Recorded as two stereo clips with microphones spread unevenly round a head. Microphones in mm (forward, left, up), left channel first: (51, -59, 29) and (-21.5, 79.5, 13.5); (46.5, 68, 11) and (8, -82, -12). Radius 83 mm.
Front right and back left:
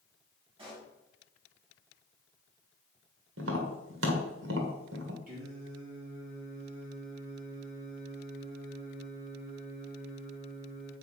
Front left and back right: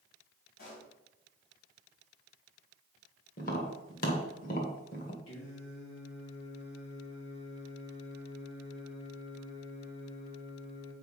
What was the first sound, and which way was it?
A pop, 55° left.